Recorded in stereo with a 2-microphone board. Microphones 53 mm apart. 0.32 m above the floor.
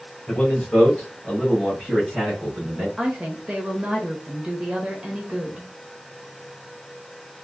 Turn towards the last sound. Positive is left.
turn(degrees=-15)  # may be behind; listen again after turning